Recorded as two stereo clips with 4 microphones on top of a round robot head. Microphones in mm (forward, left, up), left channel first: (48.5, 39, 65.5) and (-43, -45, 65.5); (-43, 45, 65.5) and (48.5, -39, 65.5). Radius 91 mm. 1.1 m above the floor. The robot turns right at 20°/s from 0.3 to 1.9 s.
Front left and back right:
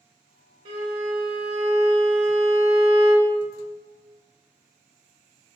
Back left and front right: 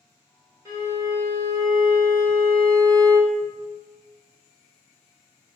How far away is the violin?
About 1.5 m.